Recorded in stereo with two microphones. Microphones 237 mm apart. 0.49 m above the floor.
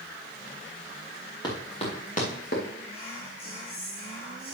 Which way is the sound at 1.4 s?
15° left (ahead or behind).